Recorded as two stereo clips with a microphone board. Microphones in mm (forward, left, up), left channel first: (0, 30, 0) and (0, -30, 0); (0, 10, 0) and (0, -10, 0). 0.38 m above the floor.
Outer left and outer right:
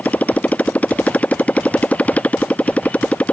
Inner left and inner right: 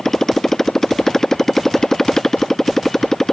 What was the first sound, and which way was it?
A motorcycle, 25° left (ahead or behind).